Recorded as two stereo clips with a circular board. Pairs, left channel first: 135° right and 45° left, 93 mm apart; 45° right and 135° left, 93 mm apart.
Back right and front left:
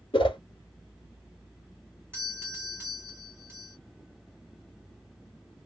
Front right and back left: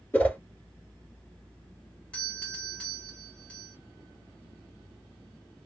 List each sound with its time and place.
0.1 s a whoosh: 115° right, 0.9 m
2.1 s a doorbell: 15° left, 1.5 m